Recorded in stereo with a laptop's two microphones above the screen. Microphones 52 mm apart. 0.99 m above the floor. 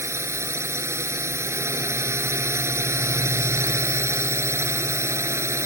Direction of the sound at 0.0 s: 60° right (ahead or behind).